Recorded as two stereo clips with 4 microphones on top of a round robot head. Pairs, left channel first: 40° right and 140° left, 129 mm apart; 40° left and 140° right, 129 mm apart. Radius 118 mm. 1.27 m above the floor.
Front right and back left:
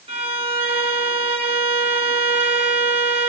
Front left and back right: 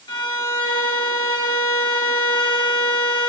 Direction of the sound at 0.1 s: 95° left.